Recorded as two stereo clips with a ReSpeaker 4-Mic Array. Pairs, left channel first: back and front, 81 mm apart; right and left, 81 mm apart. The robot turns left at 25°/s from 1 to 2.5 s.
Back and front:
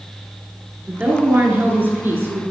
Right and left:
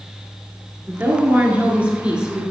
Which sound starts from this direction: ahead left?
A woman speaking, at 0.9 s.